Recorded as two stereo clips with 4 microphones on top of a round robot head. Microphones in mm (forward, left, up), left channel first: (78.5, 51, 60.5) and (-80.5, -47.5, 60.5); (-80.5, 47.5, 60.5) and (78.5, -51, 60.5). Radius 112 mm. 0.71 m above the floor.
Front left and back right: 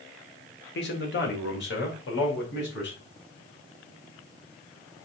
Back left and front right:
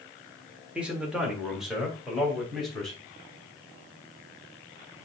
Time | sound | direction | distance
0.8 | a man speaking | 50° left | 2 m